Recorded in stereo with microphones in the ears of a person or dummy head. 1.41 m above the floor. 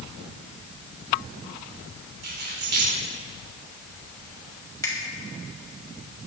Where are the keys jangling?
50° right (ahead or behind), 3 m.